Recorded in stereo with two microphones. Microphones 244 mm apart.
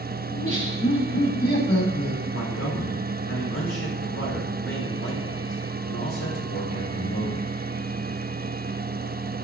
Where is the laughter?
80° left, 4.5 m.